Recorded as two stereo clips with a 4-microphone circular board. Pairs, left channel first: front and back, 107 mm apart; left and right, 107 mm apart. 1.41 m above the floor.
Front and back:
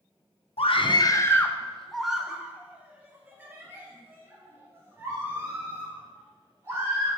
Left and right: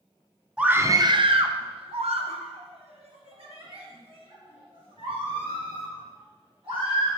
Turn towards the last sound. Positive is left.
turn(degrees=-115)